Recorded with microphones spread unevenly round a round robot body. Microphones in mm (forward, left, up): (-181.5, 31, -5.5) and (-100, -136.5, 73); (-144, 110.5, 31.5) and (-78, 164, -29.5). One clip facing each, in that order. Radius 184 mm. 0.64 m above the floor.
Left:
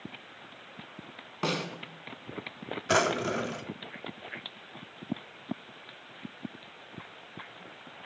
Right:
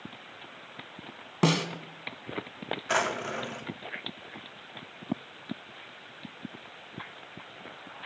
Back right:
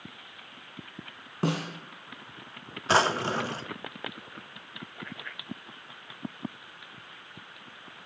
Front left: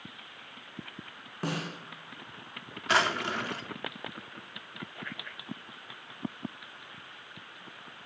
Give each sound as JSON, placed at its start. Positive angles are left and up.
{"t": 1.4, "sound": "a snare drum", "azimuth_deg": -95, "distance_m": 2.5}
{"t": 2.9, "sound": "a drawer", "azimuth_deg": 145, "distance_m": 0.8}